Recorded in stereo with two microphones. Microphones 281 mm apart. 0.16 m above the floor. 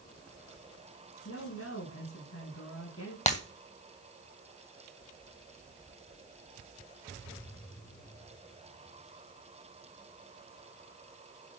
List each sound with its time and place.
1.2 s a woman speaking: 50° left (ahead or behind), 6 m
3.3 s breaking glass: 25° left (ahead or behind), 1.9 m